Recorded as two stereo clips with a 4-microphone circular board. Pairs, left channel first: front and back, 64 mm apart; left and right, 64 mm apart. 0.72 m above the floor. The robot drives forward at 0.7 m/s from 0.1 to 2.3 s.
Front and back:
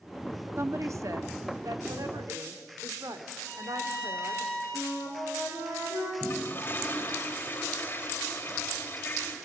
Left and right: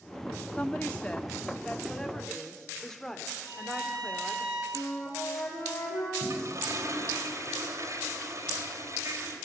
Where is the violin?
105° right, 9.5 m.